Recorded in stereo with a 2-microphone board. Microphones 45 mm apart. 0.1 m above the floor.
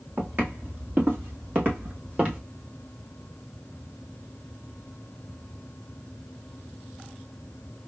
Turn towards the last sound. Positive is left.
turn(degrees=-30)  # may be behind; listen again after turning